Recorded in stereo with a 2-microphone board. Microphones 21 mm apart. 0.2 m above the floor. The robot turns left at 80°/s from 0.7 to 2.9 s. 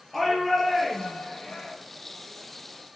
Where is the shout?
170° left, 5 m; by 1.7 s 90° left, 5 m.